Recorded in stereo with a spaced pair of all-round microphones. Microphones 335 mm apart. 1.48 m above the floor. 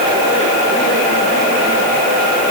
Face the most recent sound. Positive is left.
No sound to turn to.